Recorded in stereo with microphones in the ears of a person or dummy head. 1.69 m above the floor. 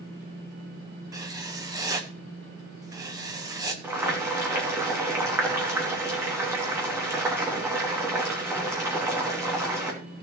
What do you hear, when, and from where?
1.1 s writing: 20° right (ahead or behind), 0.9 m
3.8 s boiling: 15° right (ahead or behind), 2.5 m